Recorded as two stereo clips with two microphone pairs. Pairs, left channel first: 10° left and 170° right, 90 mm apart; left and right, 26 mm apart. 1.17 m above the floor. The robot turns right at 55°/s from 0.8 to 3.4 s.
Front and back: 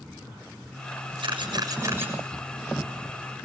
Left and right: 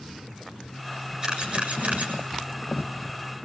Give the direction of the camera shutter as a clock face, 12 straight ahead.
5 o'clock.